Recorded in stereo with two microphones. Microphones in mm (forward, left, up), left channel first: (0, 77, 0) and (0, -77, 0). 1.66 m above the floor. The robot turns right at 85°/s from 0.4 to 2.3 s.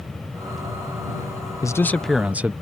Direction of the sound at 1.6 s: 140° left.